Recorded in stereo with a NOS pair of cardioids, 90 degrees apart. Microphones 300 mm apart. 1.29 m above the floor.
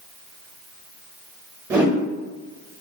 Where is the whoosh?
10° right, 1.1 m.